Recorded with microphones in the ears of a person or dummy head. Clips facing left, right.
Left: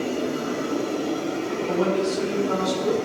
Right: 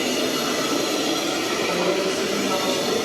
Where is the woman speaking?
45° left (ahead or behind), 5 m.